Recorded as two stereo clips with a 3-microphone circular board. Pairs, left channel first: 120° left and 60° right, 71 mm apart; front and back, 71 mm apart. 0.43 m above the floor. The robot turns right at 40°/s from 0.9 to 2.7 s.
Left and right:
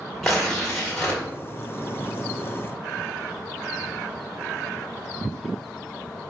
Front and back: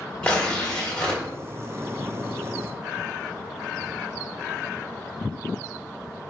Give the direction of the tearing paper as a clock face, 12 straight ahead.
11 o'clock.